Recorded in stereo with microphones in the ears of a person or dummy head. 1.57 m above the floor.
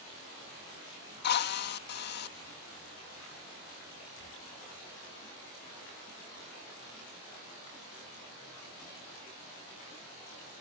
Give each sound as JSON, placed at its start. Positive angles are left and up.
{"t": 1.2, "sound": "a drill", "side_deg": 55}